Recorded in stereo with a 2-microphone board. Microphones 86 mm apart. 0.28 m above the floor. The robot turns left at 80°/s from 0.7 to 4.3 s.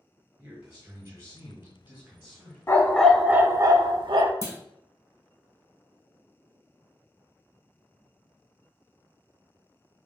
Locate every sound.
0.4 s a man speaking: 25° right, 1.7 m; by 2.6 s 170° right, 1.7 m
2.7 s a dog barking: 35° left, 0.6 m; by 4.3 s 95° right, 0.6 m
4.4 s a clunk: 35° left (ahead or behind), 0.8 m